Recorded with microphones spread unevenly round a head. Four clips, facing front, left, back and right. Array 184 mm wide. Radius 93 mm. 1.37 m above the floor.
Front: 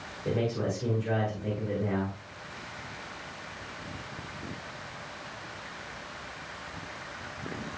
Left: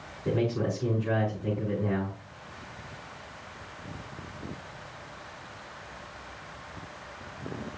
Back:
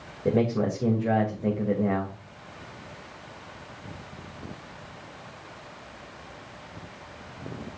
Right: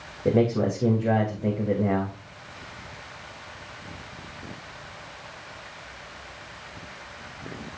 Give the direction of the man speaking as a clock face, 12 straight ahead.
4 o'clock.